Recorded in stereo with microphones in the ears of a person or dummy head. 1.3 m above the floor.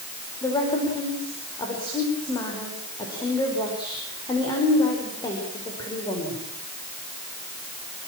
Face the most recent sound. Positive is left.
turn(degrees=20)  # may be behind; listen again after turning